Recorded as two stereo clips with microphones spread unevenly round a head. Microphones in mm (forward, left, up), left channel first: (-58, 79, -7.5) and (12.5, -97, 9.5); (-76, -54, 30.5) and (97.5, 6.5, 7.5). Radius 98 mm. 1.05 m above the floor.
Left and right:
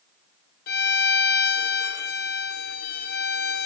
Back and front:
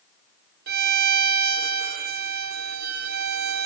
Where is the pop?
No pop in this recording.